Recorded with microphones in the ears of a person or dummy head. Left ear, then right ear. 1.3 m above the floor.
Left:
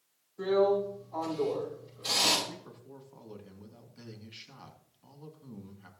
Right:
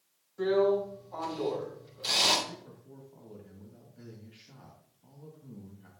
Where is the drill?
40° right (ahead or behind), 7 m.